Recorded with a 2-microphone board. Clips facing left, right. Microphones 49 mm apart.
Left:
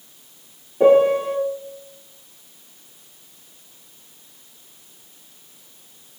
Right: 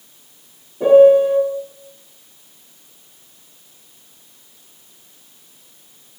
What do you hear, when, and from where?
0.8 s a piano: 75° left (ahead or behind), 0.8 m